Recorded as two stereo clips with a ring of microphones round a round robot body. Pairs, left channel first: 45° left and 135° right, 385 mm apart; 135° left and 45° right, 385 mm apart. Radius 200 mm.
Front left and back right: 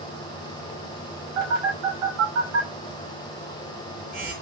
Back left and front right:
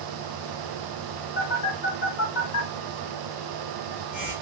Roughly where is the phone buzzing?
Behind.